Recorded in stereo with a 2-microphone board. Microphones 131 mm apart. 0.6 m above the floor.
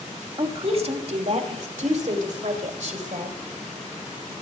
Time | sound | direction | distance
0.4 | a woman speaking | 40° right (ahead or behind) | 1.1 m